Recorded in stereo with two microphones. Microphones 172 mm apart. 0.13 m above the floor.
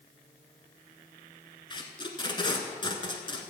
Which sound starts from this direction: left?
Tape being pulled, at 1.7 s.